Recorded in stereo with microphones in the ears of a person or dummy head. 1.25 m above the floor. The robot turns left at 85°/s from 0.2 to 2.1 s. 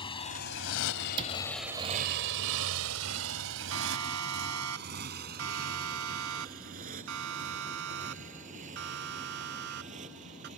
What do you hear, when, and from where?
0.0 s a motorcycle: 25° left (ahead or behind); by 10.6 s 35° right (ahead or behind)
1.2 s a cupboard door: 25° right (ahead or behind); by 1.4 s 45° right (ahead or behind)
3.7 s a siren: 85° right; by 10.5 s 55° right (ahead or behind)